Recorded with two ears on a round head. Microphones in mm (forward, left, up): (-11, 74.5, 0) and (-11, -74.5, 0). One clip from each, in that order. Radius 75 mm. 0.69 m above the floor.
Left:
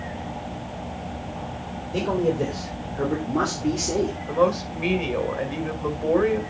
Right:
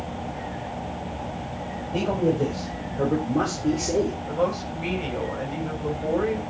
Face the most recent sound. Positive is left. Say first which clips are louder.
# left 4 dB
turn(degrees=40)  # may be behind; listen again after turning